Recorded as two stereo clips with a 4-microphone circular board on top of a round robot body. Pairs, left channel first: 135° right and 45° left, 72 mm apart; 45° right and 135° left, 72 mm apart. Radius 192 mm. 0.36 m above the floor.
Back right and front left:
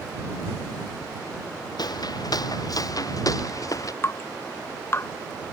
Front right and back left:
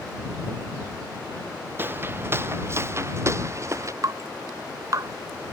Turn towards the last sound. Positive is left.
turn(degrees=170)